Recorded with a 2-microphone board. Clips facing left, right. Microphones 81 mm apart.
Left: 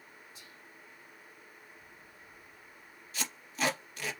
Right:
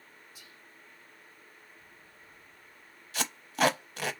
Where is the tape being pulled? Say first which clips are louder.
Right 7 dB; 75° right (ahead or behind), 0.6 m.